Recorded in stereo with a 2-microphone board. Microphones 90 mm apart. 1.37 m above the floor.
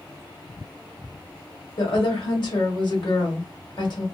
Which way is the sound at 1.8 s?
60° left (ahead or behind).